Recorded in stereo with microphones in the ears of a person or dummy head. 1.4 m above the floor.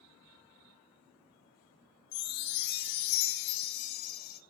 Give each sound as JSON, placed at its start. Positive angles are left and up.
{"t": 2.1, "sound": "a chime", "side_deg": 60, "distance_m": 0.9}